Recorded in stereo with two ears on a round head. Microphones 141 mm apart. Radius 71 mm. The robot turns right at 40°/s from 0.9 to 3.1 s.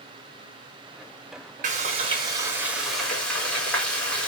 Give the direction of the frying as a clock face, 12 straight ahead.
2 o'clock.